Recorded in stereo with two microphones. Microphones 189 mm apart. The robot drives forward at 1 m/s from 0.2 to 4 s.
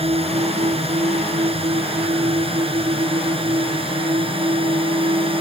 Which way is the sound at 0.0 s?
30° right (ahead or behind).